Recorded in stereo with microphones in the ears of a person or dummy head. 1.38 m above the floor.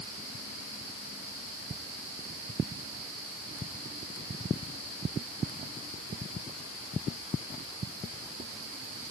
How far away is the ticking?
I don't hear ticking.